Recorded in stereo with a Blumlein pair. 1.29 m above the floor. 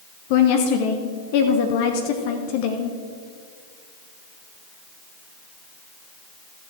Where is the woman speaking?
45° left, 1.0 m.